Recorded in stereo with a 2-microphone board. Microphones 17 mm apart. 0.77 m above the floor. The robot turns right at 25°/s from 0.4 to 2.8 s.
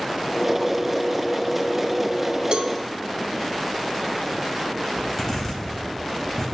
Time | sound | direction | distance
2.5 | a cowbell | 65° right (ahead or behind) | 0.6 m
5.0 | a zipper | 25° left (ahead or behind) | 3.5 m